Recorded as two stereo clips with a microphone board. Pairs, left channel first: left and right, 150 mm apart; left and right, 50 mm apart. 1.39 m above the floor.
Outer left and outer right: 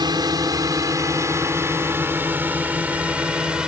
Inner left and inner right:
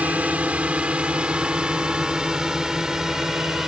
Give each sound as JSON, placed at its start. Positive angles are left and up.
{"t": 0.0, "sound": "a drone", "side_deg": -25}